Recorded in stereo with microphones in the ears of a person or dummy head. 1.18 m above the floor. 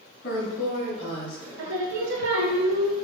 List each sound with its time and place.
0.2 s a woman speaking: 55° left (ahead or behind), 1.4 m; by 1.5 s 25° left (ahead or behind), 1.9 m
1.6 s singing: 65° right (ahead or behind), 0.9 m